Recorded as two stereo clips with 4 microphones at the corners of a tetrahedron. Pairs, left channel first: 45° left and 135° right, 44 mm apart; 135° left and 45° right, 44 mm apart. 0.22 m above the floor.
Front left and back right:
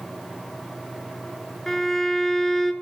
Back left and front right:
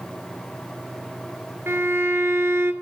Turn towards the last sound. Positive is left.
turn(degrees=-35)